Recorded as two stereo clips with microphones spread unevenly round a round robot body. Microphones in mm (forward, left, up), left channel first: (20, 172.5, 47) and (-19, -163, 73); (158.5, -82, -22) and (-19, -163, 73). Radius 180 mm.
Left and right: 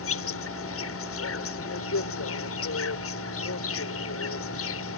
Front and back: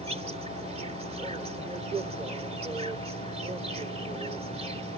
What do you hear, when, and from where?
0.0 s an insect: 125° left